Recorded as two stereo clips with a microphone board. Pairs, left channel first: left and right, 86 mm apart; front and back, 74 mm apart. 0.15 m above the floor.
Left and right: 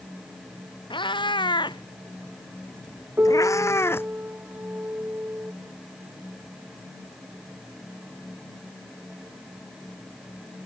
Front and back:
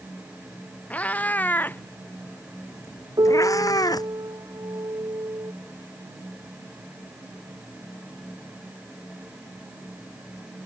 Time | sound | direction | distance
0.9 | a cat meowing | 70° left | ?
3.2 | a piano | 155° right | ?